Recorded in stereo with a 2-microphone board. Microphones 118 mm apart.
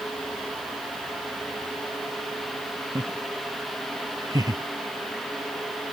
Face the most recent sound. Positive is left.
turn(degrees=-30)  # may be behind; listen again after turning